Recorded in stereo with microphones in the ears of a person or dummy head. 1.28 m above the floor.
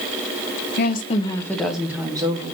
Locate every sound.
0.8 s a woman speaking: 50° left (ahead or behind), 0.6 m; by 2.5 s 25° right (ahead or behind), 0.9 m